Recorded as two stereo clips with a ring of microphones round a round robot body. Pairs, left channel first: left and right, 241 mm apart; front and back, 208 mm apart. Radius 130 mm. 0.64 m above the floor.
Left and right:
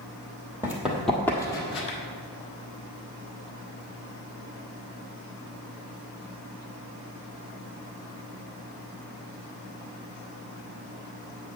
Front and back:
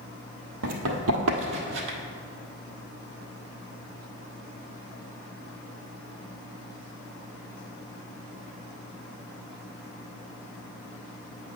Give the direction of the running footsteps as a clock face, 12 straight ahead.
6 o'clock.